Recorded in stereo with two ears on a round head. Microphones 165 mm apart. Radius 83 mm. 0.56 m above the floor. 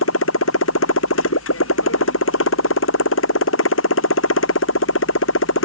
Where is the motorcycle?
85° left.